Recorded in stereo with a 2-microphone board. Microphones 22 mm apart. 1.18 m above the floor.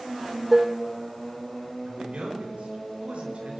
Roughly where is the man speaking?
Right.